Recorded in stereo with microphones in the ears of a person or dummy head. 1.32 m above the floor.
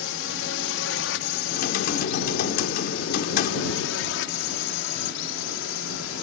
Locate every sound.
0.0 s a drone: 60° left (ahead or behind)
1.5 s typing on a keyboard: 50° left (ahead or behind)